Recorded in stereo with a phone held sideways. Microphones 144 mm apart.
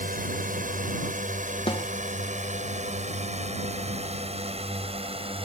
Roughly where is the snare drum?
Left.